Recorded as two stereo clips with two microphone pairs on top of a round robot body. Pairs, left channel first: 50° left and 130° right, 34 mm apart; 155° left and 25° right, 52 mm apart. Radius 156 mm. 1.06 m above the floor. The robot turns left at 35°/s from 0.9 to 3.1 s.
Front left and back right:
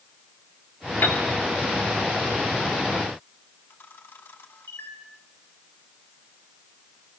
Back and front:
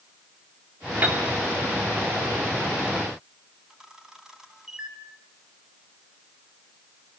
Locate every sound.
1.0 s a piano: 30° left, 3.5 m; by 1.3 s 20° left, 3.5 m
3.7 s a camera shutter: 50° left, 3 m